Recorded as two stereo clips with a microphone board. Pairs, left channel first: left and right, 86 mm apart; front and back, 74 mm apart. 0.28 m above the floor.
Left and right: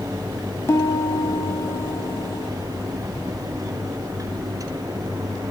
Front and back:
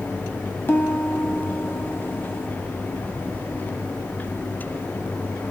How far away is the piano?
About 2 m.